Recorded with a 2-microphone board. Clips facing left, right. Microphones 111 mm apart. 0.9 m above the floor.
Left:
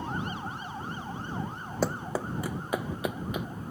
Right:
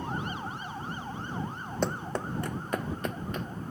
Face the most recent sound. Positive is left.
turn(degrees=10)  # may be behind; listen again after turning